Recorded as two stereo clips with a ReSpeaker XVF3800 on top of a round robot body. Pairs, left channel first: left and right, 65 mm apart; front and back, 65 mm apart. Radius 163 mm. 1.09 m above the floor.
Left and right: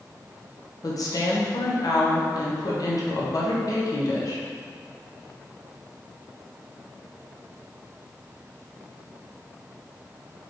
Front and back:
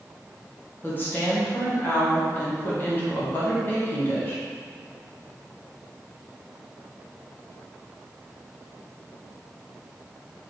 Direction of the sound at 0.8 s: 60° left.